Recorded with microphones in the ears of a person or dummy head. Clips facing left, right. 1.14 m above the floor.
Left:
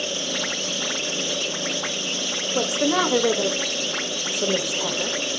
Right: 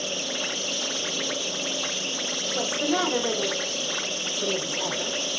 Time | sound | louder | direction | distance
2.5 | a woman speaking | left 4 dB | 60° left (ahead or behind) | 1.6 m